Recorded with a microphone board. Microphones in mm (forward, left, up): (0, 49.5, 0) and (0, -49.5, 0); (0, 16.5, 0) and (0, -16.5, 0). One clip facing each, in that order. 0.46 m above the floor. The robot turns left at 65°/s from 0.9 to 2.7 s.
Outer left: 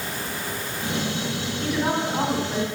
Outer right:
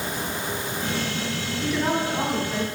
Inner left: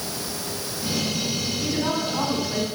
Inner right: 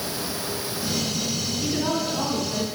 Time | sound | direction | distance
1.6 | a woman speaking | 170° right | 1.4 m